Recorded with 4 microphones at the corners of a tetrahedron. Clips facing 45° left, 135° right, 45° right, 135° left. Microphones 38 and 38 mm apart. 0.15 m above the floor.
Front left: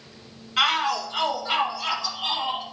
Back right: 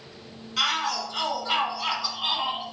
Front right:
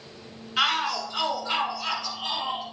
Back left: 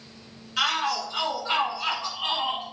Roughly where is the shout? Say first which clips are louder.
Front left 4 dB, front right 1 dB; ahead.